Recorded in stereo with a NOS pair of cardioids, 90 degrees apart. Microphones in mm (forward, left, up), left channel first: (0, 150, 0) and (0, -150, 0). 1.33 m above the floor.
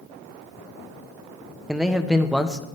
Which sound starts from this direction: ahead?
A man speaking, at 1.7 s.